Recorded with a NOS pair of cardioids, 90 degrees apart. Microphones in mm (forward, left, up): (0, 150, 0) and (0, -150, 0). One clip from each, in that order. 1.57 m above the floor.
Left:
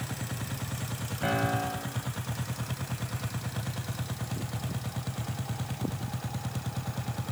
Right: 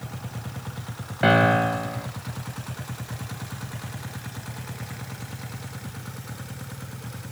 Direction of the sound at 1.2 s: 65° right.